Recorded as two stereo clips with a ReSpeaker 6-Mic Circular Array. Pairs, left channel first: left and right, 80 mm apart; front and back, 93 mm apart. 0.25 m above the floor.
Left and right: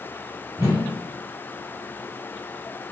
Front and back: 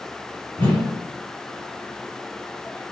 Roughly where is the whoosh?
Ahead right.